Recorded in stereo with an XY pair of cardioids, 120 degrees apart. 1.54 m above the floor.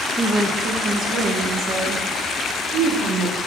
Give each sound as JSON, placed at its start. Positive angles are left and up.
{"t": 0.2, "sound": "a woman speaking", "azimuth_deg": -20, "distance_m": 1.1}